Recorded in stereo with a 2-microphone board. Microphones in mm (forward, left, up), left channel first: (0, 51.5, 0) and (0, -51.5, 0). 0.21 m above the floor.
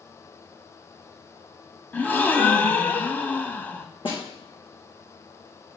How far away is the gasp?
About 0.8 m.